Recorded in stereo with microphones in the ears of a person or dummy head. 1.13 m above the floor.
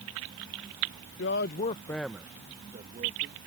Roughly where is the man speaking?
Left.